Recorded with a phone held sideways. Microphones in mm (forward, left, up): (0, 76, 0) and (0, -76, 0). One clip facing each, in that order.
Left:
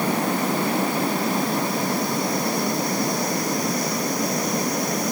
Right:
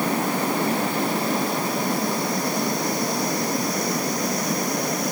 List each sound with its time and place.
Only background noise.